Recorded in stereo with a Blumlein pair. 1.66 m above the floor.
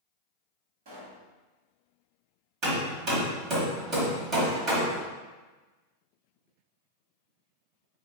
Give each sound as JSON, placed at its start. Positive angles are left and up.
{"t": 0.8, "sound": "a pop", "azimuth_deg": -50, "distance_m": 1.9}
{"t": 2.6, "sound": "hammering", "azimuth_deg": -35, "distance_m": 1.7}